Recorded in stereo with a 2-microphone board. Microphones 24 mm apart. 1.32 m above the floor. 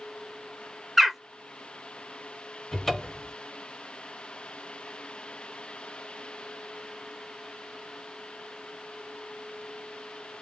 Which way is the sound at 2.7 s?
20° left (ahead or behind).